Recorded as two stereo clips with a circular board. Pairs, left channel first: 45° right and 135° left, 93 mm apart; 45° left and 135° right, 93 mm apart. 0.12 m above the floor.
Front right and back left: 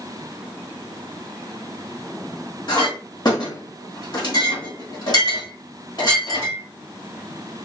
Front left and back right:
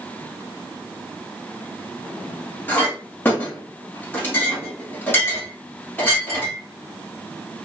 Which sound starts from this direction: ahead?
A clink, at 2.7 s.